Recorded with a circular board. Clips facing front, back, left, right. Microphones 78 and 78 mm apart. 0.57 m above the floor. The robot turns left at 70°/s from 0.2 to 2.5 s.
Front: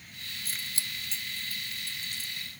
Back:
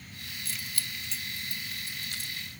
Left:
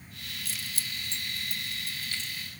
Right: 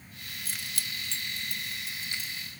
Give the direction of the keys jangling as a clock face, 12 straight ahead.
1 o'clock.